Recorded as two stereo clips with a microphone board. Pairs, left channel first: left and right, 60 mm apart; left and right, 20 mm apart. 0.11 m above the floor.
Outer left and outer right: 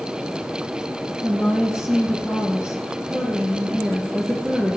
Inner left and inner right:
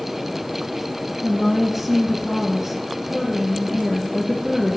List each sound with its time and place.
1.2 s a woman speaking: 15° right (ahead or behind), 2.5 m